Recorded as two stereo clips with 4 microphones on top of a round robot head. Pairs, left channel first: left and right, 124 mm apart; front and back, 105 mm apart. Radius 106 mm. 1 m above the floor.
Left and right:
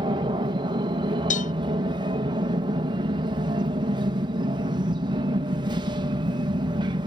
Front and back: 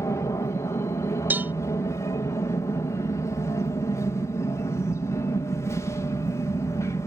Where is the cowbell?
105° left.